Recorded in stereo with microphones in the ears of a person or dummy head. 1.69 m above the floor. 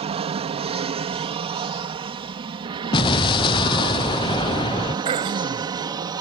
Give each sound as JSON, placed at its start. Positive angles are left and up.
{"t": 0.0, "sound": "an aircraft", "side_deg": -30}
{"t": 2.9, "sound": "an explosion", "side_deg": 25}
{"t": 5.0, "sound": "throat clearing", "side_deg": -30}